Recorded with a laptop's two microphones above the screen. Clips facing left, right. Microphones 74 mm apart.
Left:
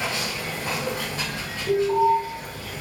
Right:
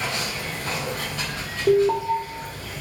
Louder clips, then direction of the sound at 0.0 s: Even; 35° left (ahead or behind).